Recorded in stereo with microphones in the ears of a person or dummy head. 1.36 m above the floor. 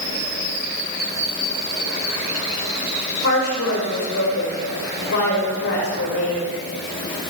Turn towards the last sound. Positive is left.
turn(degrees=75)  # may be behind; listen again after turning